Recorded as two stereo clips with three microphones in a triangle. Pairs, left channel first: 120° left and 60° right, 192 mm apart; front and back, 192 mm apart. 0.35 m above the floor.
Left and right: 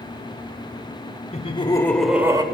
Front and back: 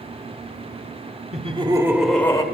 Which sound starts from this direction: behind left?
Laughter, at 1.3 s.